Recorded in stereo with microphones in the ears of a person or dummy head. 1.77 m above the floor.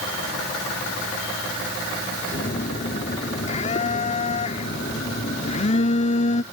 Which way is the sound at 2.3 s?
35° left (ahead or behind).